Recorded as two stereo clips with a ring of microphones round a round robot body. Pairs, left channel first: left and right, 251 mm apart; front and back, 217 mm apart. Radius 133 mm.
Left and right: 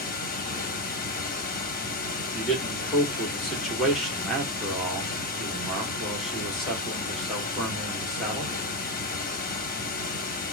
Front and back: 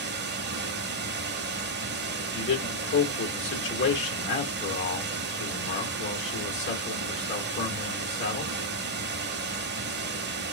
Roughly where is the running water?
Behind left.